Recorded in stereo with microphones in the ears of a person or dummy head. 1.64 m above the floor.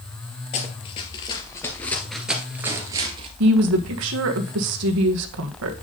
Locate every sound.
0.5 s running footsteps: 35° left (ahead or behind), 2 m; by 3.3 s 30° right (ahead or behind), 1.8 m
3.4 s a woman speaking: 70° right (ahead or behind), 1.5 m